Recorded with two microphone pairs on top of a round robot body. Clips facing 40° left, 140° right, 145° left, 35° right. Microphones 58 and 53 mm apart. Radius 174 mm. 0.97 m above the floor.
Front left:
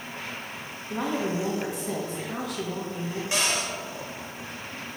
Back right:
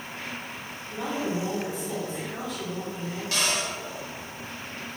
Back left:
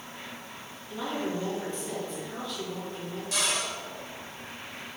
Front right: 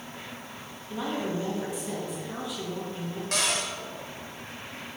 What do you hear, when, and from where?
0.9 s a woman speaking: 40° left, 1.9 m
3.3 s a cupboard door: 30° right, 1.7 m